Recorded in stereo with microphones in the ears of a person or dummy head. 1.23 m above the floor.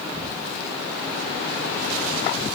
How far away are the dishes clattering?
I don't hear dishes clattering.